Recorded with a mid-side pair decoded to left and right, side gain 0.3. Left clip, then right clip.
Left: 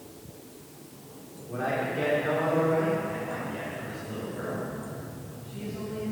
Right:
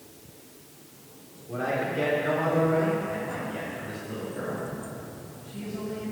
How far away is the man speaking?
About 3.5 m.